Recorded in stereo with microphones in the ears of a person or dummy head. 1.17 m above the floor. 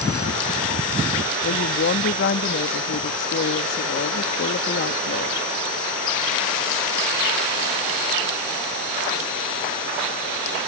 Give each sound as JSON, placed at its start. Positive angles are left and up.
{"t": 1.4, "sound": "a woman speaking", "side_deg": 55}